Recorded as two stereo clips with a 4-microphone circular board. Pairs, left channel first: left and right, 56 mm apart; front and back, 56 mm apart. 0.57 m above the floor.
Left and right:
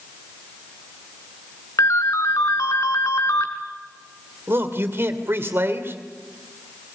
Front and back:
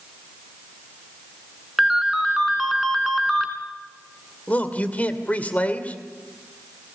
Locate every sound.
1.8 s a ringtone: 90° left, 2.5 m
4.5 s a man speaking: 60° right, 2.5 m